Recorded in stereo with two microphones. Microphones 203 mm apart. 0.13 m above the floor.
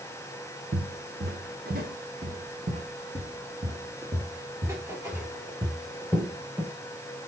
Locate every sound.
0.7 s footsteps: 65° right (ahead or behind), 2 m; by 6.7 s centre (ahead or behind), 4 m